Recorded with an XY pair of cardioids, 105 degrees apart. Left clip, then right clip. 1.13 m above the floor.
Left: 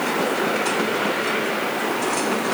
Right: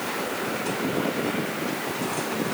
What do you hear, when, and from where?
Only background noise.